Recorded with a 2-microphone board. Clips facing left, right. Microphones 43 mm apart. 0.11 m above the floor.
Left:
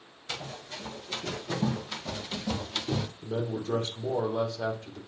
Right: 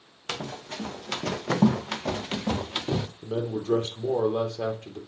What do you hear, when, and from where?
0.3 s running footsteps: 70° right (ahead or behind), 2 m; by 3.1 s 15° right (ahead or behind), 1.2 m
3.2 s a man speaking: 50° right (ahead or behind), 3 m